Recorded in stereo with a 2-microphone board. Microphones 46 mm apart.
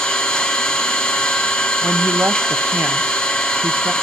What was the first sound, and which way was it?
An engine running, 20° left (ahead or behind).